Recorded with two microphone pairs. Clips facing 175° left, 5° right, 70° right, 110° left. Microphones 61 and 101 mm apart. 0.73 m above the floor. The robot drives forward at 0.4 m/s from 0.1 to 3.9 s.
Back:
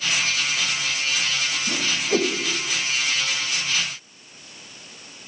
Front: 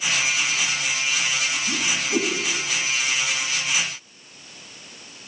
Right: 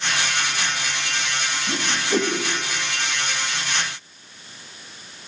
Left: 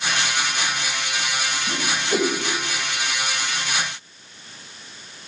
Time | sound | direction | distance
1.7 | a whoosh | 165° right | 2.5 m